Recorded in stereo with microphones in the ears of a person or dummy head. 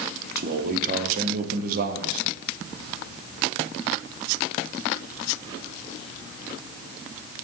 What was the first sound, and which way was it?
A man speaking, 55° right (ahead or behind).